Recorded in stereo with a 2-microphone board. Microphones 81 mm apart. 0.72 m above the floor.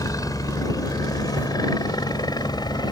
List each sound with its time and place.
0.0 s a helicopter: 45° left (ahead or behind); by 2.9 s 55° left (ahead or behind)
1.4 s a camera shutter: 20° left (ahead or behind)